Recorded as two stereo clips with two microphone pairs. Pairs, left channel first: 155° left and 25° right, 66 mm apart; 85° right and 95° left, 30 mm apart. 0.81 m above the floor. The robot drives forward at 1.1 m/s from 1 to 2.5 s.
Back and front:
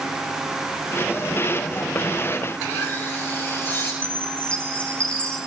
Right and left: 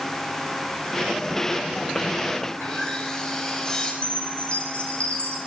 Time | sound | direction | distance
2.5 | sawing | 150° right | 6 m
4.0 | a chime | 130° right | 3 m